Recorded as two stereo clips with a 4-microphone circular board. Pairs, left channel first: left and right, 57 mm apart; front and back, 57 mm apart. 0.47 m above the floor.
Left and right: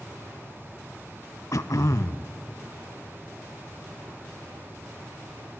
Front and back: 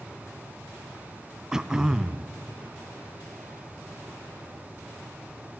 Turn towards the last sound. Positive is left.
turn(degrees=100)